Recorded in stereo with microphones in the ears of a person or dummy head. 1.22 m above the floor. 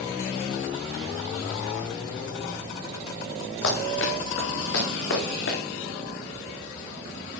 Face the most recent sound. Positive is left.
turn(degrees=65)  # may be behind; listen again after turning